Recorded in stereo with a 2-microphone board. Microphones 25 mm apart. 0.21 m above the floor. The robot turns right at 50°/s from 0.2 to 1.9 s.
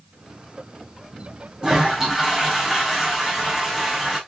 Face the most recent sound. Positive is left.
turn(degrees=-20)  # may be behind; listen again after turning